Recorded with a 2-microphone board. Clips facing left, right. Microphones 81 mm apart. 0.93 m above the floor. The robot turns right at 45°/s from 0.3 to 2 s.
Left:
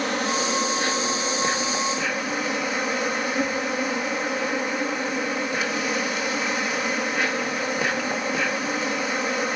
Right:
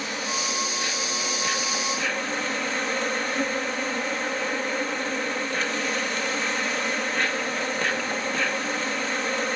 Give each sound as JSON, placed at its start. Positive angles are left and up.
{"t": 0.0, "sound": "an insect", "azimuth_deg": 95, "distance_m": 1.8}